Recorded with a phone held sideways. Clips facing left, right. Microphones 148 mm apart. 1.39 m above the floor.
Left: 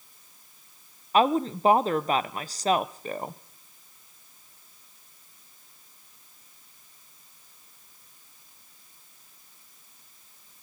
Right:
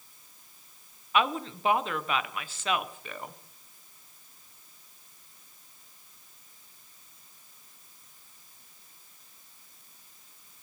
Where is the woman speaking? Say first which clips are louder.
Left 6 dB; 40° left (ahead or behind), 0.5 m.